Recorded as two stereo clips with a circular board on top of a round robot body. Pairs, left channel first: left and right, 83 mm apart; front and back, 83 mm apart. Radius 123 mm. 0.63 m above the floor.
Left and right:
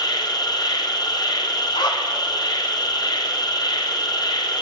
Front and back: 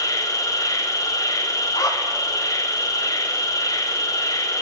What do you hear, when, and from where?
0.0 s an insect: 50° left, 1.1 m
1.7 s a zipper: 50° left, 1.0 m